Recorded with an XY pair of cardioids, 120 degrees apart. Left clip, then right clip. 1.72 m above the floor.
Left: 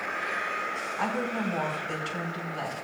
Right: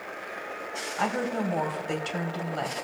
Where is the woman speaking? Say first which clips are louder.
Right 3 dB; 30° right, 3 m.